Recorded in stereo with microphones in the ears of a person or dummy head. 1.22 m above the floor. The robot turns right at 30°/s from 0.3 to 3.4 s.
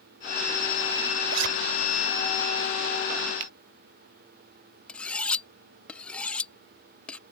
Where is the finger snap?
60° right (ahead or behind).